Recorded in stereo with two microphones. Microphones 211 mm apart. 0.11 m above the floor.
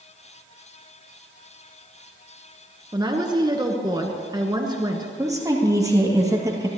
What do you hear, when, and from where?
2.9 s a woman speaking: 20° right (ahead or behind), 1.2 m
5.2 s a woman speaking: 15° right (ahead or behind), 2.5 m